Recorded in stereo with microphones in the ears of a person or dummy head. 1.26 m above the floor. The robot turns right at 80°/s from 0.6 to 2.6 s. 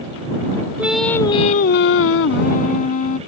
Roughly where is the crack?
I don't hear a crack.